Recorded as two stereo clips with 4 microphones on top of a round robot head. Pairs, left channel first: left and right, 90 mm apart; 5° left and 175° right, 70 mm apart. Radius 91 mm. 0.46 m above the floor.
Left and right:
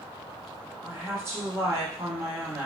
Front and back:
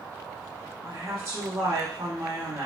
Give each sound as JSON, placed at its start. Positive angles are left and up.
{"t": 0.8, "sound": "a woman speaking", "azimuth_deg": -145, "distance_m": 1.3}